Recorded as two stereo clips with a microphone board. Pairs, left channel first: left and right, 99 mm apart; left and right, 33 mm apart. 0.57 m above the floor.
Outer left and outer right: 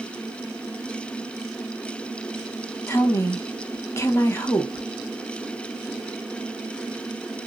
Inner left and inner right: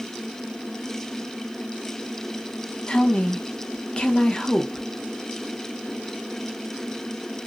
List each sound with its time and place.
2.9 s a woman speaking: 25° left (ahead or behind), 0.8 m